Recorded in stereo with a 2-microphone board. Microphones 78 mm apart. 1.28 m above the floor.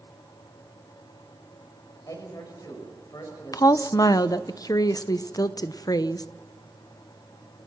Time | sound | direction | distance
2.1 | a man speaking | 50° left (ahead or behind) | 6 m
3.5 | a woman speaking | 50° left (ahead or behind) | 0.7 m